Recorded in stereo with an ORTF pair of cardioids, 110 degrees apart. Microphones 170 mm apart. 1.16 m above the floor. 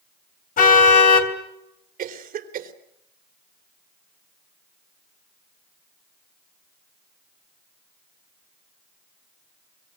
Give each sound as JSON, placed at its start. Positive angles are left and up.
{"t": 0.6, "sound": "a car horn", "azimuth_deg": 55, "distance_m": 3.0}
{"t": 2.0, "sound": "a cough", "azimuth_deg": -55, "distance_m": 3.5}